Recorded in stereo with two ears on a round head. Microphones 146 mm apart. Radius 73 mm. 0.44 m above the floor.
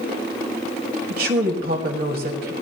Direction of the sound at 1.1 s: 60° right (ahead or behind).